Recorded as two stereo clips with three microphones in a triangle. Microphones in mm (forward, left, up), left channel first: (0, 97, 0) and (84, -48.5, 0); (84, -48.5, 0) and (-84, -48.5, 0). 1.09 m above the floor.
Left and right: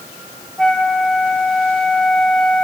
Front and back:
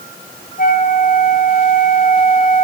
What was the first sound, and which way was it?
A flute, 35° left.